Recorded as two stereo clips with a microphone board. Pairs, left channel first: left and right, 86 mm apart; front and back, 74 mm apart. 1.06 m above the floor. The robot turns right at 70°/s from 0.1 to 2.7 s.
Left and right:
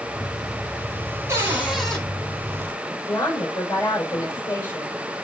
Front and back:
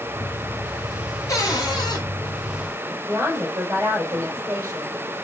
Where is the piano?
No piano in this recording.